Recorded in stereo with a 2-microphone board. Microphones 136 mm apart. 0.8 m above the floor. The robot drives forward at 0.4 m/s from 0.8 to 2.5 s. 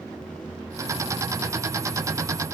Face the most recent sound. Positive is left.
No sound to turn to.